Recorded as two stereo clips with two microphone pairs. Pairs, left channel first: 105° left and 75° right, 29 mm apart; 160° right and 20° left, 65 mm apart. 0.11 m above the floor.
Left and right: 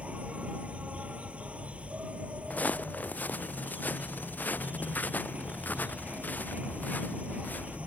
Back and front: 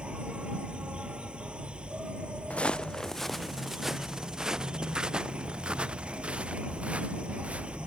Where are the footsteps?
130° left; by 7.8 s 90° left.